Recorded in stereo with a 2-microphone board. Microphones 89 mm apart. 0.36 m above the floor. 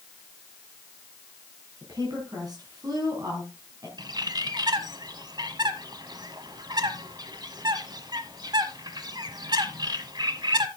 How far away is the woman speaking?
About 3 m.